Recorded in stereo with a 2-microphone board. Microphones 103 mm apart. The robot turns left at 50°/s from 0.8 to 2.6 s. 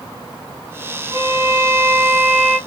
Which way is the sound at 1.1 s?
70° right.